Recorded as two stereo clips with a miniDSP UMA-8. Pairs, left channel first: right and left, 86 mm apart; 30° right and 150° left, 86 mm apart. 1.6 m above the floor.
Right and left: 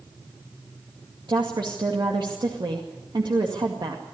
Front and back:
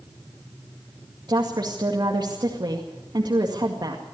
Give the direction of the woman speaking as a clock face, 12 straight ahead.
8 o'clock.